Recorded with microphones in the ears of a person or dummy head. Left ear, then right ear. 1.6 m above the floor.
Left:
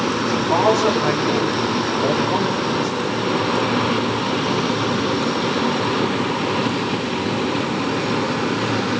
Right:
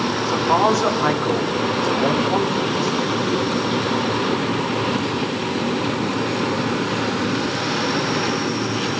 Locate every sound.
0.2 s a man speaking: 45° right (ahead or behind), 3.5 m